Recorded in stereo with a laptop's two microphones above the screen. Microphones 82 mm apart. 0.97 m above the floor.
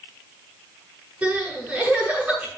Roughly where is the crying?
Right.